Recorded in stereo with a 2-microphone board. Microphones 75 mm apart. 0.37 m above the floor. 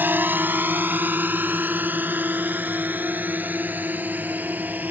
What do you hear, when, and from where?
0.0 s a drone: 25° right (ahead or behind)